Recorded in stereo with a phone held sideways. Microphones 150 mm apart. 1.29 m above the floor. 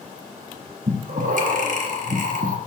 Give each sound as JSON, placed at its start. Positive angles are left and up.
{"t": 0.9, "sound": "breathing", "side_deg": -60, "distance_m": 1.1}